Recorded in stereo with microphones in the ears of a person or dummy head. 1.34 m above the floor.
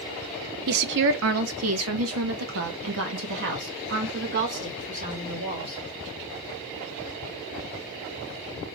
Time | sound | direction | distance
0.7 | a woman speaking | 55° right (ahead or behind) | 1.0 m